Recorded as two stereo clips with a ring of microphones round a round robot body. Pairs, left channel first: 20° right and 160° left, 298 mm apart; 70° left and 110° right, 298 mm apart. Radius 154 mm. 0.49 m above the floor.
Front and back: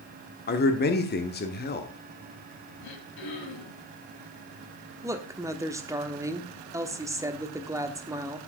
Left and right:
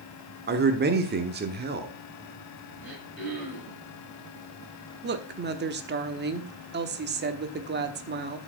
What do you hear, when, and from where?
0.5 s a man speaking: 70° right, 1.2 m
2.8 s throat clearing: 25° right, 5.5 m
5.0 s a woman speaking: 130° right, 1.2 m